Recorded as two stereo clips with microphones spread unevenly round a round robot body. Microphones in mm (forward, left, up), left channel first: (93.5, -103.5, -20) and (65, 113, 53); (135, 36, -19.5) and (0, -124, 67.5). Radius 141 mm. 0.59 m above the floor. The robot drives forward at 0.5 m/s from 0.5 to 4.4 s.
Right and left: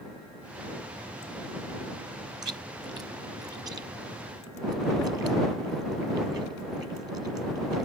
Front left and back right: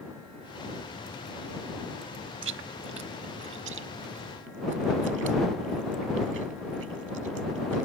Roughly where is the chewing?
Behind.